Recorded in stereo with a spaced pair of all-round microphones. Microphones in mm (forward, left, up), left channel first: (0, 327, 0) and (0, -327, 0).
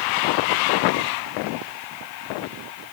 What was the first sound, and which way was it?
Only background noise.